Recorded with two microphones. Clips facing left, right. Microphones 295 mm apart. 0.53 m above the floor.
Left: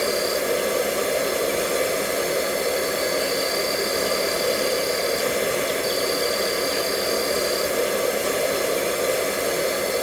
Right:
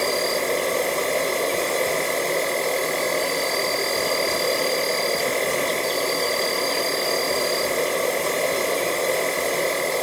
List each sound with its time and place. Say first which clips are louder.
0.0 s an insect: left 1 dB; 10° left (ahead or behind), 1.3 m